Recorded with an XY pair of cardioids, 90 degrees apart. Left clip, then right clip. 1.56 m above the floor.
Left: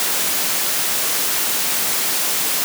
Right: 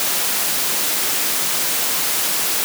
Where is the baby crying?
I don't hear a baby crying.